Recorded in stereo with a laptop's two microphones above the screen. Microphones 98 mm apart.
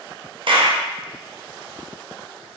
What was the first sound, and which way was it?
A clap, 60° right (ahead or behind).